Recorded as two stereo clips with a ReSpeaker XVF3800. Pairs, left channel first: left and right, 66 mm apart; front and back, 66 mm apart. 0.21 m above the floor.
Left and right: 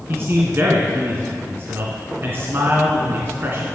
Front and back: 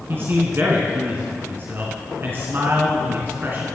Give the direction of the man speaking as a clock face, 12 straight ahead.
5 o'clock.